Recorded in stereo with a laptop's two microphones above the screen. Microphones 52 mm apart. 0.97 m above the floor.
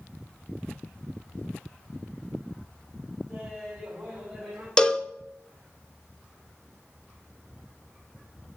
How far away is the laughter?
About 6 m.